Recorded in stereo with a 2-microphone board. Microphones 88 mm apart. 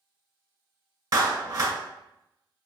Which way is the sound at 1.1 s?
35° right (ahead or behind).